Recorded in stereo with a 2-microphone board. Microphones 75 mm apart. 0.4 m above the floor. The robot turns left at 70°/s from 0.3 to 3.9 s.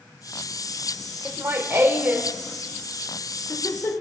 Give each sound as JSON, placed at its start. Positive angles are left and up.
{"t": 1.2, "sound": "laughter", "side_deg": -35, "distance_m": 0.9}